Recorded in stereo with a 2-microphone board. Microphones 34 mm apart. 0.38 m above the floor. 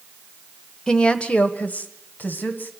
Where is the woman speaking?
20° left (ahead or behind), 1.0 m; by 2.7 s 60° left (ahead or behind), 2.5 m.